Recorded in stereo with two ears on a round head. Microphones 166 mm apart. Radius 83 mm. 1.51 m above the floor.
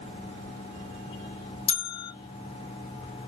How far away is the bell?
About 0.6 m.